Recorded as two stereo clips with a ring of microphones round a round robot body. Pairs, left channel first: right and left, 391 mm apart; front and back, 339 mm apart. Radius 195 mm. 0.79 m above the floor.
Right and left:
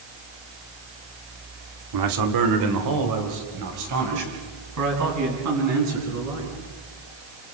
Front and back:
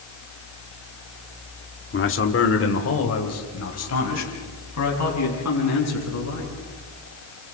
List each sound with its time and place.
1.9 s a man speaking: 55° left, 1.8 m; by 6.5 s 40° left, 8.5 m